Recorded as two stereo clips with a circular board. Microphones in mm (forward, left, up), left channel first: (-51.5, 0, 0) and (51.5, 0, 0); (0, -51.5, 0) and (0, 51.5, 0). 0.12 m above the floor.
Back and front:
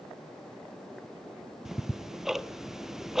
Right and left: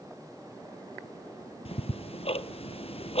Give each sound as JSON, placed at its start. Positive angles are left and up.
{"t": 1.6, "sound": "ticking", "azimuth_deg": -85, "distance_m": 0.6}